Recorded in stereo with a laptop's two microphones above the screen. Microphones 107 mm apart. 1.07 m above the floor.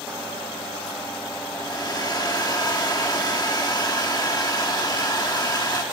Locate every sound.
1.5 s a hair dryer: 40° left (ahead or behind), 1.3 m